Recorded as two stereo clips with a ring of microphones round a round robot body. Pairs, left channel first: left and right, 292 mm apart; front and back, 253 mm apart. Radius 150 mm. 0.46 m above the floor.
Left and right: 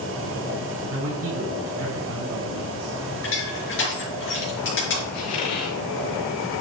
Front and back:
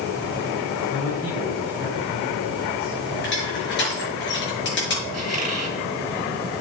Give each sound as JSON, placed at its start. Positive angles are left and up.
{"t": 0.9, "sound": "a man speaking", "azimuth_deg": -50, "distance_m": 6.5}
{"t": 3.2, "sound": "crushing", "azimuth_deg": 40, "distance_m": 6.0}
{"t": 5.1, "sound": "a squeak", "azimuth_deg": 125, "distance_m": 4.5}